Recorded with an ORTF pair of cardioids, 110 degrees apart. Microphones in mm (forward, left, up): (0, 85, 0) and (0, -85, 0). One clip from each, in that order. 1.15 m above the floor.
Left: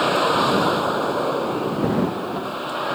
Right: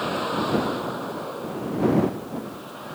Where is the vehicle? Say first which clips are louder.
Left 8 dB; 50° left; by 3.0 s 75° left.